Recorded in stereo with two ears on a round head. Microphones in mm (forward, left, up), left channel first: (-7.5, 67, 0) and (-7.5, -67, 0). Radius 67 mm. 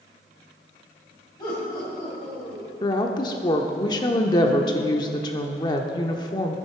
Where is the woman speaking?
25° left (ahead or behind), 0.8 m.